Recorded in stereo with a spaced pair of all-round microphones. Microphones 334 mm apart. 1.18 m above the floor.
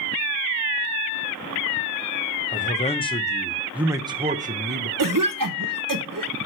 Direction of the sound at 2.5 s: 25° left (ahead or behind).